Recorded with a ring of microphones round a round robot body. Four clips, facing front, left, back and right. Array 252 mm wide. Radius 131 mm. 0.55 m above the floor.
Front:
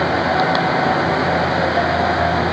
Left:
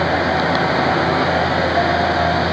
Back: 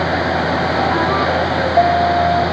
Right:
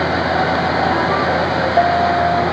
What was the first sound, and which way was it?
Only background noise.